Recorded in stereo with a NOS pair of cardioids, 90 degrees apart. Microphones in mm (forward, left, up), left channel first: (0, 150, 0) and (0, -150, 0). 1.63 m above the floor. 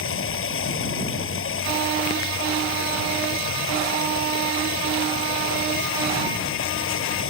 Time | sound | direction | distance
0.0 | running water | 50° left | ?